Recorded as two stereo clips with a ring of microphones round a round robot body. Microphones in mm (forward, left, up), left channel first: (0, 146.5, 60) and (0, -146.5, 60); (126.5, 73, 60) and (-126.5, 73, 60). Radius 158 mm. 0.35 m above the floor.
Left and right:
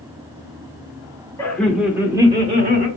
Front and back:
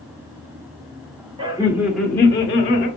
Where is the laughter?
155° left, 0.9 m; by 2.9 s 40° right, 1.1 m.